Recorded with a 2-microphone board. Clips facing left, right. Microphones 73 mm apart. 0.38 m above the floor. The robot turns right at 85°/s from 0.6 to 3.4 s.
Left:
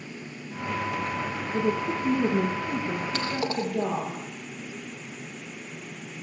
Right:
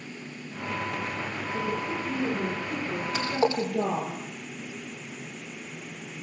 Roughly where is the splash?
Centre.